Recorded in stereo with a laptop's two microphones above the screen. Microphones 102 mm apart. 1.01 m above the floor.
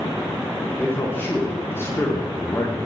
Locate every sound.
0.8 s a man speaking: 20° left (ahead or behind), 1.1 m; by 2.9 s 15° left (ahead or behind), 0.6 m